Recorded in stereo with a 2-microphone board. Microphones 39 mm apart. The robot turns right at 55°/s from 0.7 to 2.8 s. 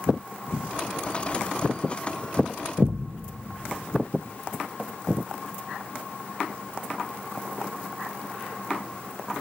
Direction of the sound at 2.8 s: 80° right.